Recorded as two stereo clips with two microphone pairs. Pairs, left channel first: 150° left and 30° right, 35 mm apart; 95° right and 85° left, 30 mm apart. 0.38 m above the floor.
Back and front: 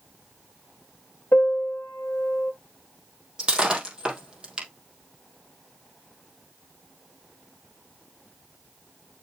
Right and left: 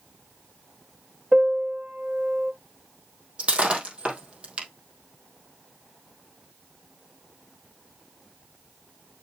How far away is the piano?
About 1.4 m.